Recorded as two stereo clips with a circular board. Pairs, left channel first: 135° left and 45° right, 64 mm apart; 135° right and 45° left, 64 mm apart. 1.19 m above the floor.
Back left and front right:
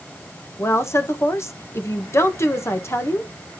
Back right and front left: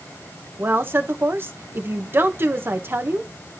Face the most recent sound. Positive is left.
turn(degrees=95)